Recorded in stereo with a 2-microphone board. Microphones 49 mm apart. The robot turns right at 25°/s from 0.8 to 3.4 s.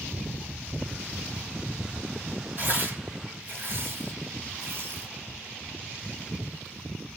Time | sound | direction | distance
2.6 | tearing paper | 35° right (ahead or behind) | 1.8 m